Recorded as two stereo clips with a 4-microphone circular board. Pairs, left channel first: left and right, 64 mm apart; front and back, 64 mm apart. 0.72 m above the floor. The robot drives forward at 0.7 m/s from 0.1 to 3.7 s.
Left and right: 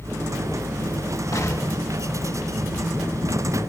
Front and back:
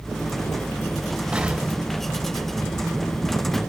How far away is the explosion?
About 2 m.